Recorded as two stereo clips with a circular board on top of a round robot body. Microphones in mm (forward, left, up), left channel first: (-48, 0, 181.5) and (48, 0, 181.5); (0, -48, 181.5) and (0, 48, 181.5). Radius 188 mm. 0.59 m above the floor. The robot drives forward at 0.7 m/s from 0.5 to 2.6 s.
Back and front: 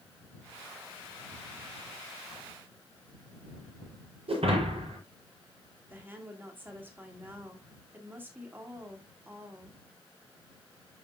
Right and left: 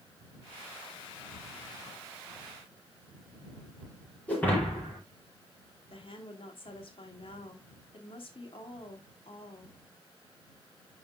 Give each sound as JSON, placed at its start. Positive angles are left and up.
{"t": 4.3, "sound": "breaking glass", "azimuth_deg": -15, "distance_m": 5.5}
{"t": 5.9, "sound": "a woman speaking", "azimuth_deg": -70, "distance_m": 2.5}